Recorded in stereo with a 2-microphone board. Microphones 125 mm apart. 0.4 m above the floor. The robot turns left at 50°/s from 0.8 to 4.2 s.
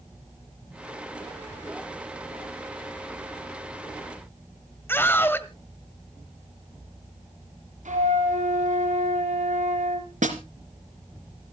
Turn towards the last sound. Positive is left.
turn(degrees=-85)